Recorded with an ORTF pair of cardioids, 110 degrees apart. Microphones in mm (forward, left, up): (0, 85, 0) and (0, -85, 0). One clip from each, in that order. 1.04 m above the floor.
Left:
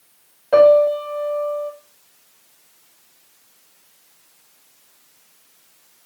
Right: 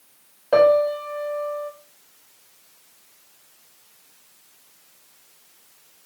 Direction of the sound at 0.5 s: 5° right.